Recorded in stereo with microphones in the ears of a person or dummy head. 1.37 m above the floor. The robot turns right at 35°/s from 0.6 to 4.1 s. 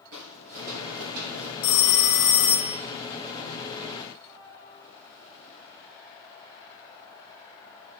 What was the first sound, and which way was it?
Footsteps, 45° right (ahead or behind).